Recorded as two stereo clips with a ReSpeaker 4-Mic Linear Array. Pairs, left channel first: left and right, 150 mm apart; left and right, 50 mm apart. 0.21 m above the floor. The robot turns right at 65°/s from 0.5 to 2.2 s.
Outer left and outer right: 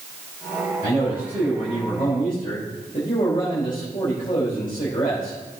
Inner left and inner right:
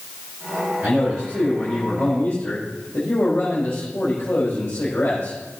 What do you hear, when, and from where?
0.8 s a man speaking: 40° right, 5 m; by 5.4 s 50° left, 5 m